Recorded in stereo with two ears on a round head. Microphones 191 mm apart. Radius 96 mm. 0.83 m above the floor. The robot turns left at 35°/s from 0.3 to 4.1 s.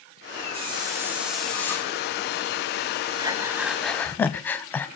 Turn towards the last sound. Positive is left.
turn(degrees=170)